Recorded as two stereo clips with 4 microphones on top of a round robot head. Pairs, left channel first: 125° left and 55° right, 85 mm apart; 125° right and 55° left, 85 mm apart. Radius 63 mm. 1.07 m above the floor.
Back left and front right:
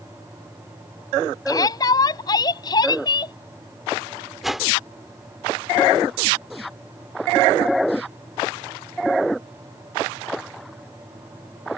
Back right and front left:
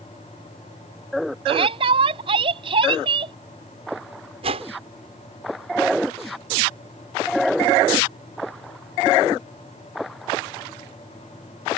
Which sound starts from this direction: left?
A shout, at 1.5 s.